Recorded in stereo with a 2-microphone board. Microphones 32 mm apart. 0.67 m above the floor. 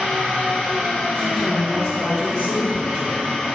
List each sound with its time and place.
0.0 s an engine running: 70° right (ahead or behind), 1.4 m
1.1 s a woman speaking: centre (ahead or behind), 0.8 m